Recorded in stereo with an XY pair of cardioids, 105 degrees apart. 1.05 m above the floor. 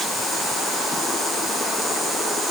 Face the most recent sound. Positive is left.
No sound to turn to.